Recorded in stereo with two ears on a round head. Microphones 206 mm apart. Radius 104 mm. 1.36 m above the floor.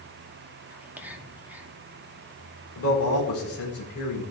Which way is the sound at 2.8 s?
65° left (ahead or behind).